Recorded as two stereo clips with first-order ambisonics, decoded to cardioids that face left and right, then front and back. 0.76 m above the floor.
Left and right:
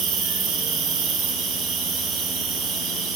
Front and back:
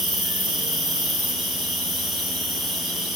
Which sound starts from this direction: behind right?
An insect, at 0.0 s.